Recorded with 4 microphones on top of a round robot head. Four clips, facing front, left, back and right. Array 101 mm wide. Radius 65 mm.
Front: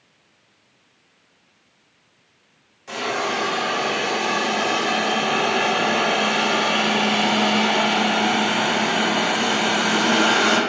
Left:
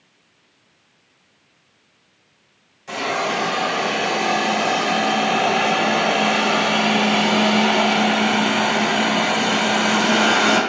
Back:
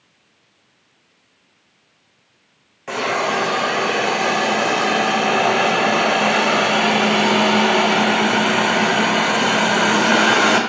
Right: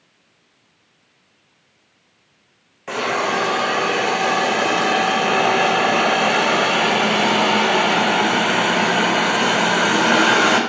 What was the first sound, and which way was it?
A hiss, 135° right.